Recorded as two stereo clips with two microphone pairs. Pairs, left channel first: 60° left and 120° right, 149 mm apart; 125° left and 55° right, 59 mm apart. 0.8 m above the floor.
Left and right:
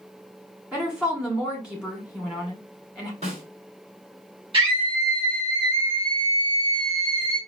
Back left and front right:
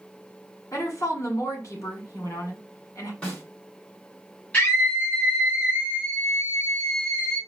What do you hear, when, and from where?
0.7 s a woman speaking: 155° left, 2.0 m
3.2 s a snare drum: 165° right, 2.5 m
4.5 s a scream: 170° right, 1.4 m